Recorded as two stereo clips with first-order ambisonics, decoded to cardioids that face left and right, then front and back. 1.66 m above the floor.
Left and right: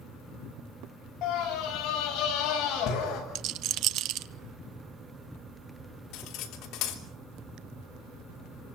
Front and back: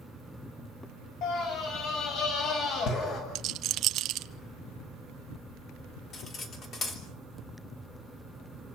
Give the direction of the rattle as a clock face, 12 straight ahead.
4 o'clock.